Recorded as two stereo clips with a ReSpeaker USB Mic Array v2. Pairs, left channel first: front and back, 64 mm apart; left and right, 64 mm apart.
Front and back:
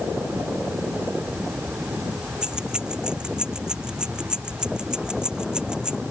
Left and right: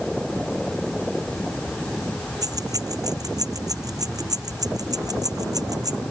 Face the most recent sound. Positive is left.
turn(degrees=-105)